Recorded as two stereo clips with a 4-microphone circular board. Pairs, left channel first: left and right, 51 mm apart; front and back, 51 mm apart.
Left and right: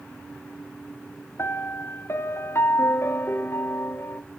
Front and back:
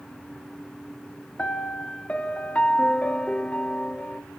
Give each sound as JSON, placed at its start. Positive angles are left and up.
{"t": 1.4, "sound": "a piano", "azimuth_deg": 65, "distance_m": 0.6}